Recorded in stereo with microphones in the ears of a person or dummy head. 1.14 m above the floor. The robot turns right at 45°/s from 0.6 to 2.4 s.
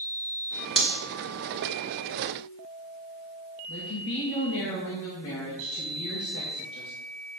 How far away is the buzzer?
I don't hear a buzzer.